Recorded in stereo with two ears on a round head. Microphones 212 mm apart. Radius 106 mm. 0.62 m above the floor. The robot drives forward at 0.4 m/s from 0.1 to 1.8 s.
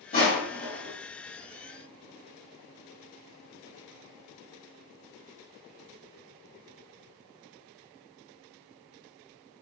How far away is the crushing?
About 1.5 m.